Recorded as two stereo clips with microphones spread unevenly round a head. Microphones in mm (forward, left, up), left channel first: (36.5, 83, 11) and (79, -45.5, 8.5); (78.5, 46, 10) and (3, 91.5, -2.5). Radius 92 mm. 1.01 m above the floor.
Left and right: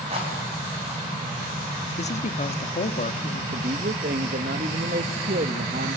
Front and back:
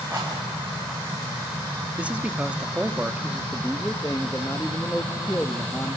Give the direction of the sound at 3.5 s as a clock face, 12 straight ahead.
4 o'clock.